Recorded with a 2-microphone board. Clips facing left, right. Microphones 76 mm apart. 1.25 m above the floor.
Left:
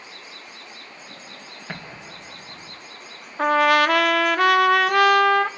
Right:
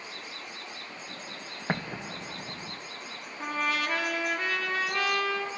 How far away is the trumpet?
About 0.8 m.